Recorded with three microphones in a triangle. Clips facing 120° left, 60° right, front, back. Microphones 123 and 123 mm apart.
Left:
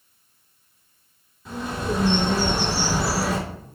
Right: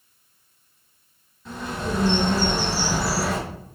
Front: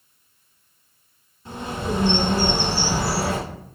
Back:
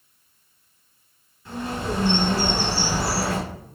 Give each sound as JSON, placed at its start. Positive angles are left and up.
{"t": 1.4, "sound": "a bird", "azimuth_deg": 40, "distance_m": 1.3}